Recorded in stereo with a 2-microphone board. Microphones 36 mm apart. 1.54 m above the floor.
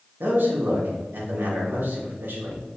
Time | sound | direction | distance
0.2 | a man speaking | 80° right | 3 m